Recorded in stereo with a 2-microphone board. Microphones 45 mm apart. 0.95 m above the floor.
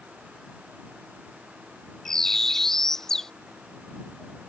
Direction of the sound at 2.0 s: 10° left (ahead or behind).